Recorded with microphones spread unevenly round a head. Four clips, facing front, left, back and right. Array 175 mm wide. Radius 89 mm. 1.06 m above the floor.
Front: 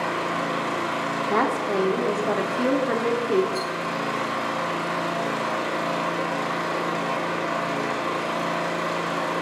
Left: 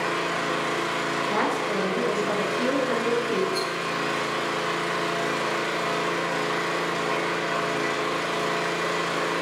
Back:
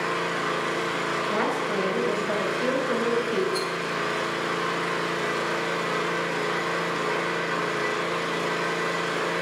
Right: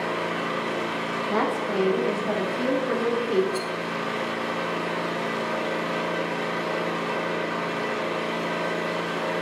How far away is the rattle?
About 3 m.